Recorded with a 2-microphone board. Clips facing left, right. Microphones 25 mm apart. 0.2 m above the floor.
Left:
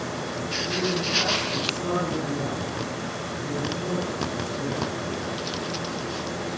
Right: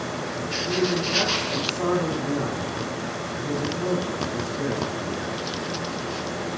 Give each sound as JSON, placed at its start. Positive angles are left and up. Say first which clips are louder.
{"t": 0.7, "sound": "a man speaking", "louder": "right 3 dB", "side_deg": -65, "distance_m": 8.0}